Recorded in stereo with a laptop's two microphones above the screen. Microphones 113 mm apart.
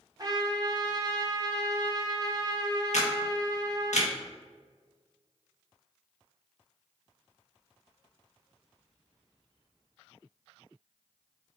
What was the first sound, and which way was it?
A trumpet, 35° right (ahead or behind).